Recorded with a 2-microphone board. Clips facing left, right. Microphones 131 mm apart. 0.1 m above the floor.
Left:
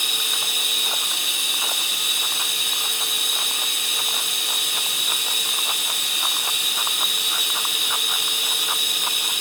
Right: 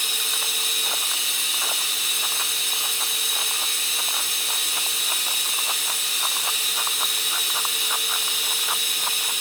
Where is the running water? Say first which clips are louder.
Left 1 dB; 65° left (ahead or behind), 3.5 m.